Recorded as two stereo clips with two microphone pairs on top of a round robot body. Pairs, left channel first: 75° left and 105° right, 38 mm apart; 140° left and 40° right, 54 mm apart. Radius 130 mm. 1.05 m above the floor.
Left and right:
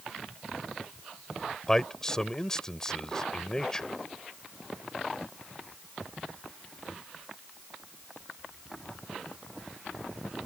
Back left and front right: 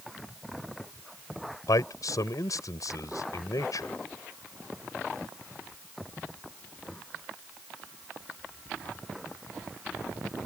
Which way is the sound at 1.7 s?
155° left.